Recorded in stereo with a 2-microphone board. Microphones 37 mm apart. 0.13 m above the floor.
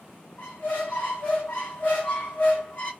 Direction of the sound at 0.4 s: 55° left (ahead or behind).